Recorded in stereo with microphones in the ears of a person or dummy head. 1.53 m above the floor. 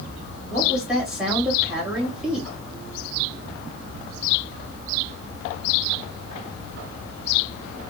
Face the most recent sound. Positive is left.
turn(degrees=-5)  # may be behind; listen again after turning